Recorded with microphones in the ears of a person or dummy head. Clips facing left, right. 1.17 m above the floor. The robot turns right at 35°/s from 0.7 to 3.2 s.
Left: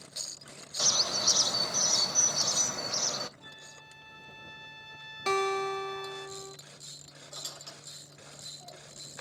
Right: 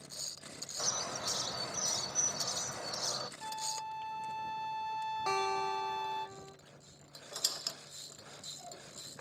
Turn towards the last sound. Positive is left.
turn(degrees=-75)  # may be behind; listen again after turning